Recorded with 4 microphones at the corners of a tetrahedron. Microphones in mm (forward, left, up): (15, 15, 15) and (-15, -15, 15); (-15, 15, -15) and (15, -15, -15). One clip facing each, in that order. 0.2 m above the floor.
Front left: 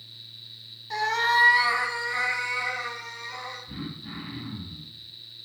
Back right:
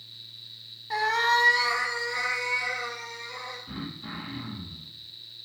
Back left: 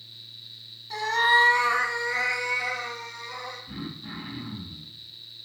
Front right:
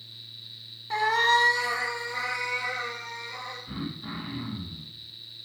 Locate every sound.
0.9 s a cat meowing: 65° right, 0.7 m; by 3.6 s 115° left, 3.5 m
3.7 s throat clearing: 105° right, 2.5 m